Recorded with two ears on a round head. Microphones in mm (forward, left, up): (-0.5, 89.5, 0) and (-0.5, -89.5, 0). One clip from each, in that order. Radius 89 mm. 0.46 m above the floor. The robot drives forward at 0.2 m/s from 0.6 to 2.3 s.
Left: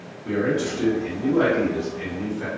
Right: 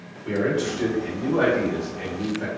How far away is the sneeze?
No sneeze in this recording.